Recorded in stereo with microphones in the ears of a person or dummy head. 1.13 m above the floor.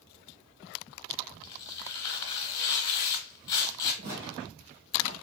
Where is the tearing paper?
25° left (ahead or behind), 1.3 m.